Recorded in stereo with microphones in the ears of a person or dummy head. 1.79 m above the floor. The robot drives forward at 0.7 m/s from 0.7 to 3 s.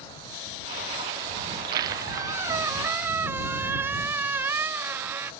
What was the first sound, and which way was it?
A squeak, 30° right (ahead or behind).